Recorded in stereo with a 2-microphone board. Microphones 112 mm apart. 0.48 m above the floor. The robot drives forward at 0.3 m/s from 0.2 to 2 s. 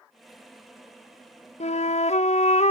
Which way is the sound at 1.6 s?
85° left.